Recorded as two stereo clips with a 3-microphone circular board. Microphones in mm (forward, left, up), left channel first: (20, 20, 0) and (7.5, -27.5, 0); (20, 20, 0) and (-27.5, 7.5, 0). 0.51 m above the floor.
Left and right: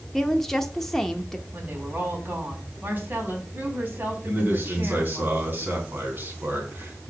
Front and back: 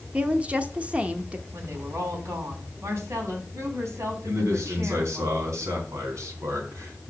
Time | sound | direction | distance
0.1 | a woman speaking | 150° left | 0.8 m
1.5 | a woman speaking | 155° right | 4 m
4.2 | a man speaking | 155° right | 4 m